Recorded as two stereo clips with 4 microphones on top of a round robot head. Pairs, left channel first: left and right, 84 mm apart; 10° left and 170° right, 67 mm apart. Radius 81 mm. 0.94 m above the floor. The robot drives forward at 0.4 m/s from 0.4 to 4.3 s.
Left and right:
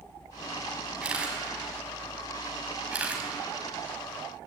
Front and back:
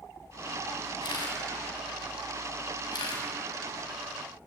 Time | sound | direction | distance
1.0 | a camera shutter | 10° right | 5.5 m